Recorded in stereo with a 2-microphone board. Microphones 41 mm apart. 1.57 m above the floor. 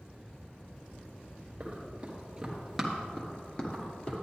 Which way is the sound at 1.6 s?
35° right (ahead or behind).